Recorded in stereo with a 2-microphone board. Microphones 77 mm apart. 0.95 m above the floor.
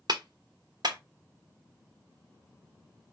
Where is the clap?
60° right (ahead or behind), 0.9 m.